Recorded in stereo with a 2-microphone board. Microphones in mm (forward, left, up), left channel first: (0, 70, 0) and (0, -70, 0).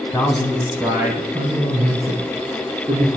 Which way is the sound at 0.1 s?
15° left (ahead or behind).